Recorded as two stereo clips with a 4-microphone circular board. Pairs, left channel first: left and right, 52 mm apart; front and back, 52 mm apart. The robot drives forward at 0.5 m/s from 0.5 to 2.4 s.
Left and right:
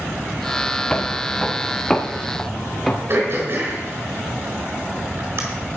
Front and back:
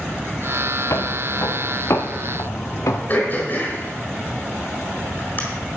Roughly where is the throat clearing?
Ahead right.